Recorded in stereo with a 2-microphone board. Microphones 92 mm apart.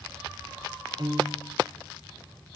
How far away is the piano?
About 1.2 m.